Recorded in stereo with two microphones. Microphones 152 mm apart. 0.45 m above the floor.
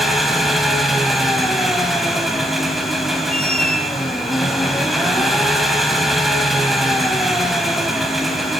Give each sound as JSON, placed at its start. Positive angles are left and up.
{"t": 0.0, "sound": "an engine running", "side_deg": 0, "distance_m": 3.0}
{"t": 3.3, "sound": "a squeak", "side_deg": 70, "distance_m": 3.0}